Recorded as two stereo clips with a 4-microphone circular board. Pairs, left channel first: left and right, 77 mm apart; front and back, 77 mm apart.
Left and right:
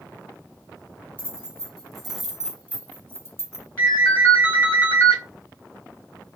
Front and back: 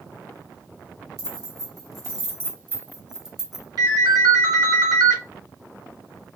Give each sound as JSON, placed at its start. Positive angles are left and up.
{"t": 1.2, "sound": "keys jangling", "azimuth_deg": 160, "distance_m": 1.2}
{"t": 3.8, "sound": "a ringtone", "azimuth_deg": 145, "distance_m": 2.5}